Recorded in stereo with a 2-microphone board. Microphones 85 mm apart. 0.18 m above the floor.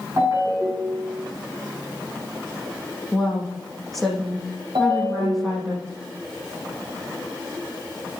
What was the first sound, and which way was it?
A ringtone, 40° right (ahead or behind).